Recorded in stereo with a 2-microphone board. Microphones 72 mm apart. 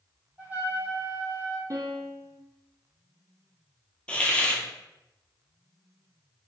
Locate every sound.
0.4 s a trumpet: 20° right (ahead or behind), 1.2 m
1.7 s a piano: 50° right (ahead or behind), 0.7 m
4.1 s a hiss: 15° left (ahead or behind), 0.7 m